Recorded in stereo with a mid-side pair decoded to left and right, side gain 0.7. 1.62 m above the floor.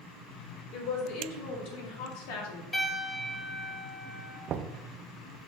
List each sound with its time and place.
0.7 s a woman speaking: 65° left, 3.5 m; by 2.6 s 75° left, 1.9 m
2.7 s a piano: 25° left, 3.5 m
4.5 s knocking: 40° right, 0.6 m